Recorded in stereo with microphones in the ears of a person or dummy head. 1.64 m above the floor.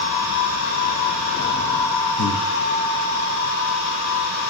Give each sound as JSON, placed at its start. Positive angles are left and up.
{"t": 2.2, "sound": "breathing", "side_deg": 70, "distance_m": 0.5}